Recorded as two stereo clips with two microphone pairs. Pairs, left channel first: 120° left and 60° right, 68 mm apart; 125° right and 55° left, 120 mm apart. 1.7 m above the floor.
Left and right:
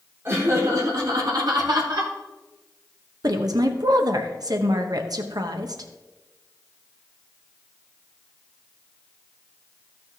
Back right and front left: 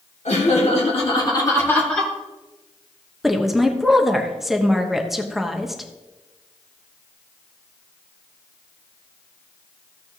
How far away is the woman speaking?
About 1.0 m.